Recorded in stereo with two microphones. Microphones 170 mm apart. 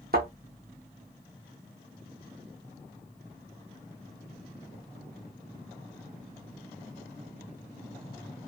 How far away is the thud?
About 1.2 m.